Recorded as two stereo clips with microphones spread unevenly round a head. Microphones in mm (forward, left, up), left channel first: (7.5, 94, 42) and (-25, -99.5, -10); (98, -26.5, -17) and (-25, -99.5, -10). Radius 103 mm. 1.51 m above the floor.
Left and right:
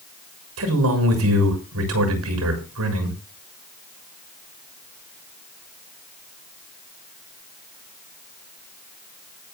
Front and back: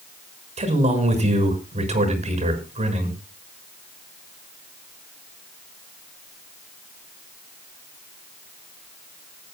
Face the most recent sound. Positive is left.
turn(degrees=-110)